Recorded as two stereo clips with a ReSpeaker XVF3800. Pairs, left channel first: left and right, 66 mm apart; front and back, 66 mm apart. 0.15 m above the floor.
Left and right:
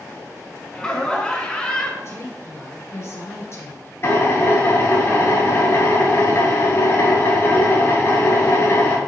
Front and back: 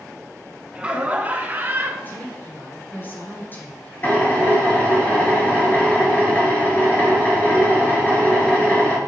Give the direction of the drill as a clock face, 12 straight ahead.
10 o'clock.